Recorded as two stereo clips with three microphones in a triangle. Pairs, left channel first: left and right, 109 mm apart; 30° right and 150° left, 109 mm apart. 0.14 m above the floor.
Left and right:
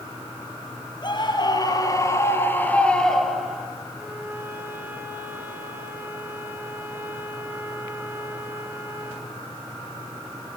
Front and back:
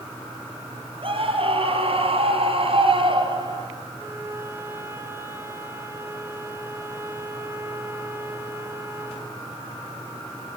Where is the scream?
125° left, 4 m; by 3.7 s 170° right, 3.5 m.